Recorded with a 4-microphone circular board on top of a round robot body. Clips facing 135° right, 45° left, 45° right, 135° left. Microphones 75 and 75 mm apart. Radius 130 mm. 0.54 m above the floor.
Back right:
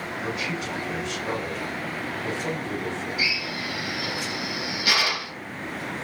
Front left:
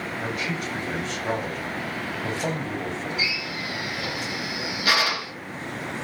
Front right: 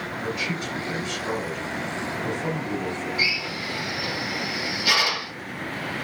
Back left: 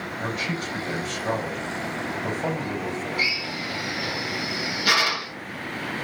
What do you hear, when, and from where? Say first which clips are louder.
0.2 s a man speaking: even, back left 1 dB; 90° left, 4.5 m
3.2 s a drill: back right 1 dB, even; 95° left, 4 m